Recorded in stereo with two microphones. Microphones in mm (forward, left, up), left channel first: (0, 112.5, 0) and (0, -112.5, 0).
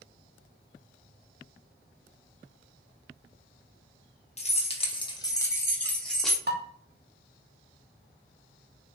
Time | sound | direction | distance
4.4 | keys jangling | 30° left (ahead or behind) | 0.9 m
6.5 | dishes clattering | 50° right (ahead or behind) | 0.9 m